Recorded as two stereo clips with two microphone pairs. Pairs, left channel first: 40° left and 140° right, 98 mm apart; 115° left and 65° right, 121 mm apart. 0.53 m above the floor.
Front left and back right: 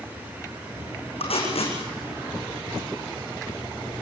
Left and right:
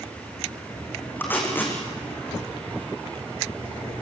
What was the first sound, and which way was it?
Tape being pulled, 40° left.